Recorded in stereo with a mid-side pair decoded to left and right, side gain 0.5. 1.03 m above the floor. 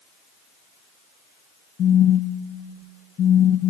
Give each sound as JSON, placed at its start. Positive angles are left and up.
{"t": 1.8, "sound": "a phone buzzing", "azimuth_deg": 55, "distance_m": 0.5}